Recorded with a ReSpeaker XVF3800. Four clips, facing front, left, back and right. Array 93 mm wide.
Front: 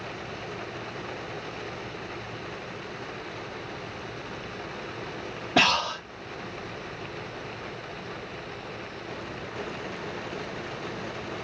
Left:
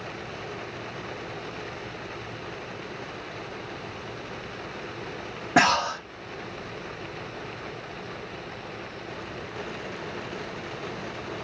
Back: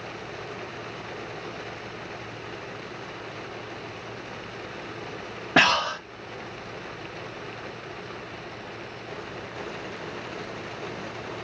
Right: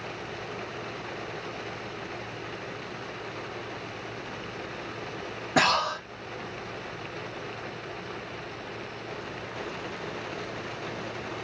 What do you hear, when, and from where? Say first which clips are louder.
5.6 s breathing: left 3 dB, back 3 dB; 150° left, 1.7 m